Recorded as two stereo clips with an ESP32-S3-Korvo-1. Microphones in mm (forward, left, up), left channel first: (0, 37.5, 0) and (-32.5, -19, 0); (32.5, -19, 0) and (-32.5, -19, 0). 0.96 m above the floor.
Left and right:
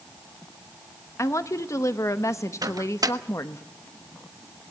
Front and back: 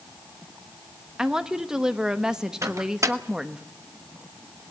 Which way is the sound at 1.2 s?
100° left.